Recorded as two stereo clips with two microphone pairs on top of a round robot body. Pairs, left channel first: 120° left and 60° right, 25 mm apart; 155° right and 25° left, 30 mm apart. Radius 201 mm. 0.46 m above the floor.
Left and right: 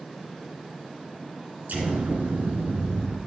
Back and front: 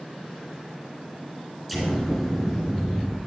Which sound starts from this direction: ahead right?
An explosion, at 1.7 s.